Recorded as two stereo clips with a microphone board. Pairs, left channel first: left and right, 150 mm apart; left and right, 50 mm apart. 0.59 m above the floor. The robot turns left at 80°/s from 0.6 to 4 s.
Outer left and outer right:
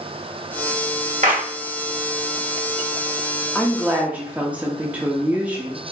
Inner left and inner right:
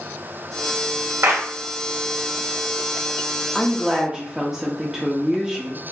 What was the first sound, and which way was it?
A clap, 60° right (ahead or behind).